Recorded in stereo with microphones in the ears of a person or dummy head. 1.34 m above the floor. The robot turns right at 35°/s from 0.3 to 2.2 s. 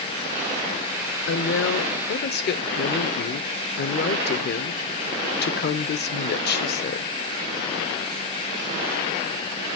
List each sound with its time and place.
1.3 s a woman speaking: 85° left, 0.7 m; by 7.1 s 120° left, 0.7 m